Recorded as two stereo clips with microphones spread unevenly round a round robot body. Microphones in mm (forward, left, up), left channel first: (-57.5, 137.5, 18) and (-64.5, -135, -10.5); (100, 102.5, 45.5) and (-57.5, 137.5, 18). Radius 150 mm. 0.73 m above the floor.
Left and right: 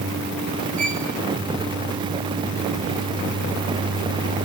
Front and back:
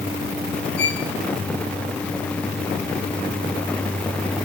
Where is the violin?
30° right, 2 m.